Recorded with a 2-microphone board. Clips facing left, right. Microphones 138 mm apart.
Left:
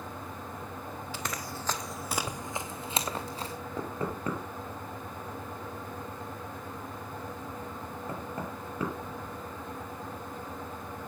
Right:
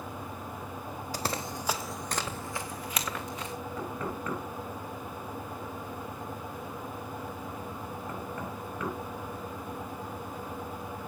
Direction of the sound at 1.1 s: 40° right (ahead or behind).